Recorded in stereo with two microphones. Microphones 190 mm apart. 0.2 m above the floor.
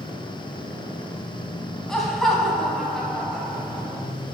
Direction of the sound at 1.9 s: Centre (ahead or behind).